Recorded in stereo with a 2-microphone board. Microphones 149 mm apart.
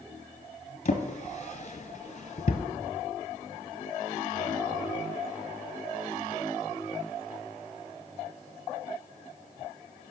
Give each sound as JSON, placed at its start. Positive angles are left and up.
{"t": 0.8, "sound": "a drawer", "side_deg": 45, "distance_m": 1.0}